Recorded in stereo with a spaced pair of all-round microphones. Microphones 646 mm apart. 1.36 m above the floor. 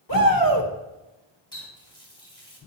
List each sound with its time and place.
0.1 s a shout: 30° left (ahead or behind), 1.6 m
1.5 s a running tap: 5° left (ahead or behind), 2 m